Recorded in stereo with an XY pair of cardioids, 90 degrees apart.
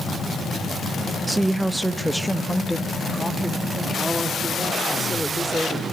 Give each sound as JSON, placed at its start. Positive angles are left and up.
{"t": 1.3, "sound": "a woman speaking", "azimuth_deg": -25, "distance_m": 0.8}